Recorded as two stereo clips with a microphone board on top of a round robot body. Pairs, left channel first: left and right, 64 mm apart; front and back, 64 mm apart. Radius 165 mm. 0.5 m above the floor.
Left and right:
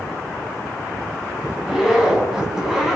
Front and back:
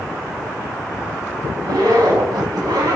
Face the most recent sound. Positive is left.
turn(degrees=-170)